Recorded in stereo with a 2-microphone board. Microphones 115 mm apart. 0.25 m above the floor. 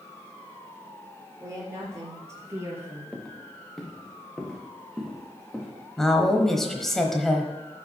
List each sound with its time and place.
1.4 s a woman speaking: 25° right (ahead or behind), 4 m; by 3.0 s 15° right (ahead or behind), 3.5 m
3.1 s footsteps: 5° left (ahead or behind), 1.7 m; by 5.7 s centre (ahead or behind), 3.5 m
6.0 s a woman speaking: 5° left (ahead or behind), 1.0 m